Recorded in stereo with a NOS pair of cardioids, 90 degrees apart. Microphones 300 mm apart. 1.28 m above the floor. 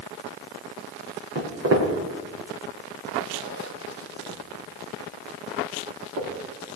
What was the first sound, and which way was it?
Footsteps, 55° right.